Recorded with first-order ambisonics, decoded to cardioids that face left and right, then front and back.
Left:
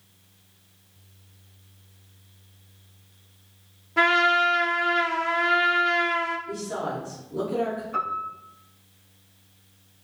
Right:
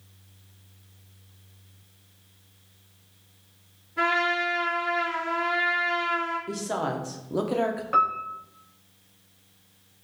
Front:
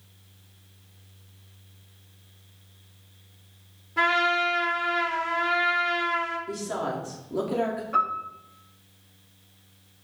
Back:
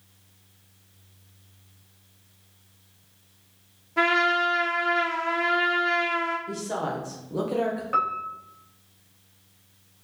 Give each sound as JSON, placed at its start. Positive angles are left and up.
{"t": 4.0, "sound": "a trumpet", "azimuth_deg": 95, "distance_m": 0.9}
{"t": 6.5, "sound": "a woman speaking", "azimuth_deg": -90, "distance_m": 0.6}
{"t": 7.9, "sound": "a piano", "azimuth_deg": -120, "distance_m": 1.0}